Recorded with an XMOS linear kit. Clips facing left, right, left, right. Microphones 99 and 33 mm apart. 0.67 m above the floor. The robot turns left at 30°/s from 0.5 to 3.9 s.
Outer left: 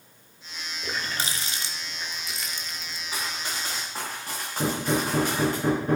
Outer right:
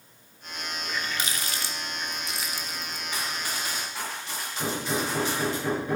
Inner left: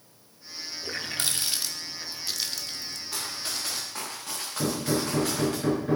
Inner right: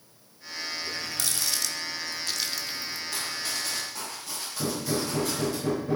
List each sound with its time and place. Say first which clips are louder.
0.8 s a running tap: outer left 2 dB, inner left 6 dB; 45° left (ahead or behind), 0.9 m; by 3.0 s 20° right (ahead or behind), 0.9 m
3.1 s running footsteps: even, inner right 1 dB; 10° left (ahead or behind), 6 m; by 5.6 s 50° left (ahead or behind), 8.5 m
4.6 s hammering: outer left 4 dB, inner left 2 dB; 50° left (ahead or behind), 6 m